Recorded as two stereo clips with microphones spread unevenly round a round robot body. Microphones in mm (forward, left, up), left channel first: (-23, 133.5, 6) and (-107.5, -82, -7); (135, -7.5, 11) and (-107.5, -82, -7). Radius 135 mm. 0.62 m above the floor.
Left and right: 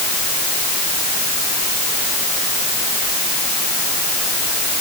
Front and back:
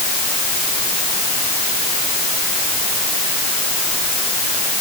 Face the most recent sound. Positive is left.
No sound to turn to.